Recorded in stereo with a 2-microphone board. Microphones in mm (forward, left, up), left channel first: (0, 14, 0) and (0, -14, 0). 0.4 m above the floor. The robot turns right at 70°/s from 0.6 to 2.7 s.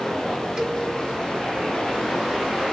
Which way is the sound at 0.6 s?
40° right (ahead or behind).